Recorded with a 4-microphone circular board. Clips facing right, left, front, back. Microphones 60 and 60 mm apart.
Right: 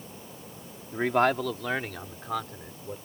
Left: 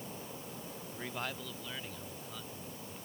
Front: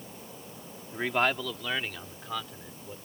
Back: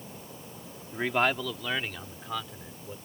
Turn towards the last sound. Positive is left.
turn(degrees=-90)